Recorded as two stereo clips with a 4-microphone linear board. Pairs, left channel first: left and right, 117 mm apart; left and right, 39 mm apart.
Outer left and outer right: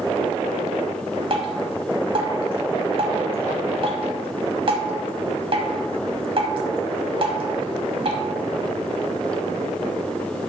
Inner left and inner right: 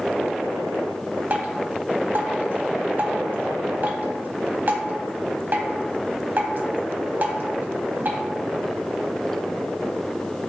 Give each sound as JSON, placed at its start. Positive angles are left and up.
{"t": 1.3, "sound": "dripping", "side_deg": -45, "distance_m": 1.0}